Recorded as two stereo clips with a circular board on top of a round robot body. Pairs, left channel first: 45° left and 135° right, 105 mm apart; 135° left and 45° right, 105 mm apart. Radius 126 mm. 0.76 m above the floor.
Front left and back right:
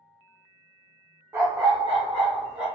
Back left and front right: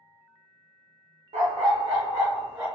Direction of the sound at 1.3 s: 65° right.